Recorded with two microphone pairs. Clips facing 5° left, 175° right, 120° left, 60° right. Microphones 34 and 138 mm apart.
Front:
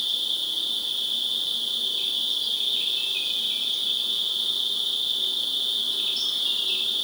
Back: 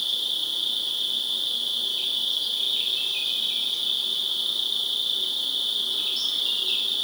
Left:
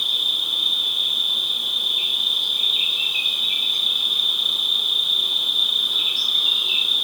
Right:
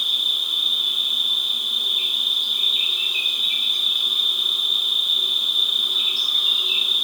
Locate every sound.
0.0 s an insect: 110° right, 0.9 m